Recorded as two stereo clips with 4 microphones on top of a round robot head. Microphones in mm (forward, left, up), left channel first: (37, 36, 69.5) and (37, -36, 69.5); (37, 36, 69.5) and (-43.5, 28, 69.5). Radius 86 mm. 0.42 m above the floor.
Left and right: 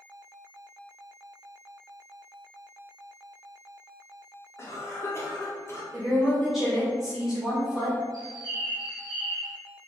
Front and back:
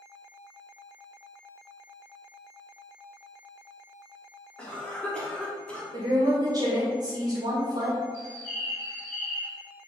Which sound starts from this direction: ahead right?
A bird, at 8.1 s.